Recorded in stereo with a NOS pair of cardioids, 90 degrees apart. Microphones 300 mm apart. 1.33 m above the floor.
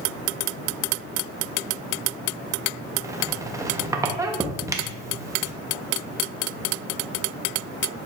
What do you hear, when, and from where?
3.0 s a squeak: 10° right, 0.6 m